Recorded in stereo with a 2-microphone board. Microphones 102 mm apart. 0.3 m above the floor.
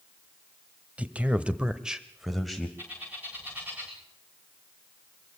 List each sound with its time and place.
1.0 s a man speaking: 15° right (ahead or behind), 1.3 m; by 2.7 s centre (ahead or behind), 1.4 m
2.8 s a bird: 20° right (ahead or behind), 8.5 m